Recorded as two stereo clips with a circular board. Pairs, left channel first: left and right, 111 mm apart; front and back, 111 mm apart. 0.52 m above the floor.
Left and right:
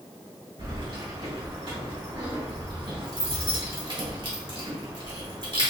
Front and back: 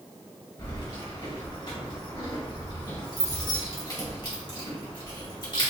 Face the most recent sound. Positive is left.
turn(degrees=-50)